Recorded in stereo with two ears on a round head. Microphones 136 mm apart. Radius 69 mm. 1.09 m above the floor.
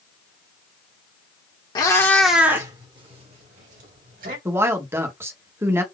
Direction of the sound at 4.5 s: 15° right (ahead or behind).